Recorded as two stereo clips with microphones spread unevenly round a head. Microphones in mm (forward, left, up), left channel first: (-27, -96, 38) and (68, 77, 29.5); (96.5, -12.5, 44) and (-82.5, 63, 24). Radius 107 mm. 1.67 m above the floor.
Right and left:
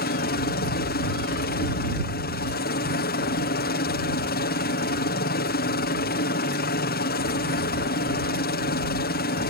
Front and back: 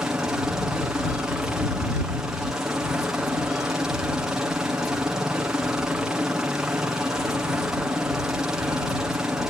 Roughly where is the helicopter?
Behind right.